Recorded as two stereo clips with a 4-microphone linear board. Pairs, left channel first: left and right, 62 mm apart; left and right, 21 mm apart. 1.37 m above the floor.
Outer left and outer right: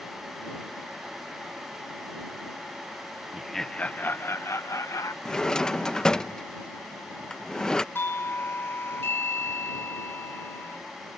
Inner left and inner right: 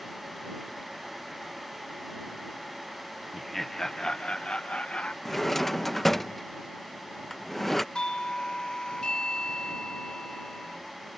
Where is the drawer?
10° left (ahead or behind).